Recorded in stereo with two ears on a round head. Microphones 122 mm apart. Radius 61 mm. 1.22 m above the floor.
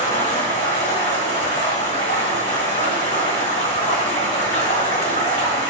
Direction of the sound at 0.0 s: 50° left (ahead or behind).